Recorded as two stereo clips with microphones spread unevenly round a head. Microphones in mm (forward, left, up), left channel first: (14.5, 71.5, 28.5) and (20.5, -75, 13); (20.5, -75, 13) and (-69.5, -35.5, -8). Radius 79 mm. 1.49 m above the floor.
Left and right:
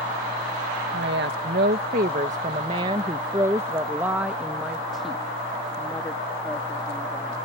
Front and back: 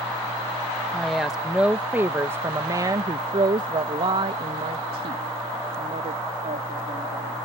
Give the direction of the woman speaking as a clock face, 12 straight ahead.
4 o'clock.